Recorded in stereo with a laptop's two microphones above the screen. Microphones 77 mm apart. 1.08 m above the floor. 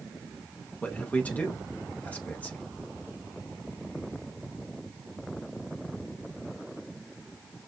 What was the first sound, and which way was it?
A man speaking, 20° left (ahead or behind).